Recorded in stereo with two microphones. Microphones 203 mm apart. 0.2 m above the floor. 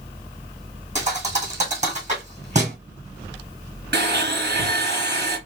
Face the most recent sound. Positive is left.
turn(degrees=-55)  # may be behind; listen again after turning